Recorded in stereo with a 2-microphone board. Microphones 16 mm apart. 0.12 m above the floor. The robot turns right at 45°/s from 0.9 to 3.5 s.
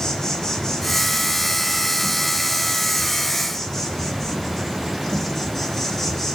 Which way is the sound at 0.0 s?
35° left.